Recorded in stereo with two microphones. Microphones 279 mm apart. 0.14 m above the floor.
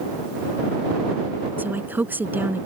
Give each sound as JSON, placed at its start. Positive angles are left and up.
{"t": 1.6, "sound": "a woman speaking", "side_deg": -5}